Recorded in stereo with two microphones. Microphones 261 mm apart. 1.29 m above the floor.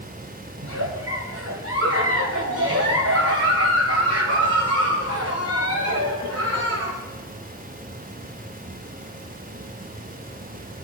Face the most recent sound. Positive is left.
turn(degrees=-65)  # may be behind; listen again after turning